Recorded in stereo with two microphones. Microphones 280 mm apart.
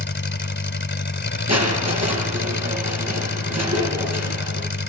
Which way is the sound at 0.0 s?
45° left (ahead or behind).